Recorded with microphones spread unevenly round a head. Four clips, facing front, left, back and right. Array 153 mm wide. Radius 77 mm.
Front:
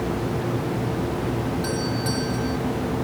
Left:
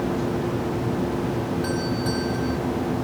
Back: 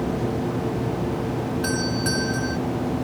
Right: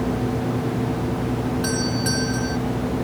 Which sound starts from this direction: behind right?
A doorbell, at 1.6 s.